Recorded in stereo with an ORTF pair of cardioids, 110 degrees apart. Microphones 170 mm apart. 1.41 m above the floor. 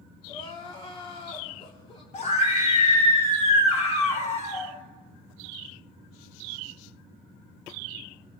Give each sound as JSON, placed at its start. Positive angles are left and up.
{"t": 0.3, "sound": "crying", "azimuth_deg": 35, "distance_m": 3.5}
{"t": 2.1, "sound": "a scream", "azimuth_deg": 45, "distance_m": 6.0}